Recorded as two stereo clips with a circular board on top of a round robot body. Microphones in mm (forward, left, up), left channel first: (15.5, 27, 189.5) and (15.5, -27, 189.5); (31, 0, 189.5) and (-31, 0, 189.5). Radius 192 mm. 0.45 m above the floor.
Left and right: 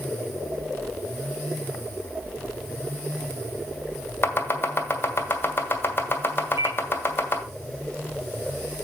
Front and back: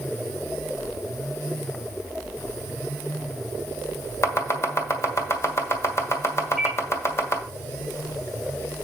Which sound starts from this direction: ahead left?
Chopping, at 4.2 s.